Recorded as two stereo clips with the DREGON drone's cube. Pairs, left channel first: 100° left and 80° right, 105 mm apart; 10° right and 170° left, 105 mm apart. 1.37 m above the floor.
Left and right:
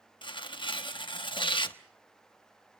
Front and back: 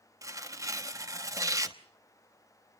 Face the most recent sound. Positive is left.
turn(degrees=120)